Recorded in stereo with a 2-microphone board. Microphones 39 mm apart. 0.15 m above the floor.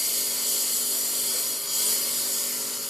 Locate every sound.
0.0 s a lawn mower: 5° right (ahead or behind)